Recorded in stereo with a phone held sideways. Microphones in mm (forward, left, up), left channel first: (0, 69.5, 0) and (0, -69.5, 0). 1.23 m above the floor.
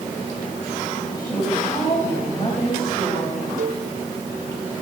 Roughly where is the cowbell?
Right.